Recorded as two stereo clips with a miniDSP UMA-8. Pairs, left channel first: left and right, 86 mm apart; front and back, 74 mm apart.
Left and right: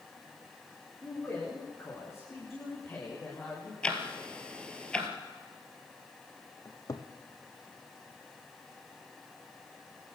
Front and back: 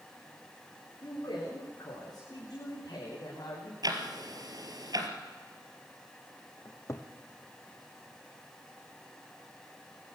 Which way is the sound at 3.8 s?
170° left.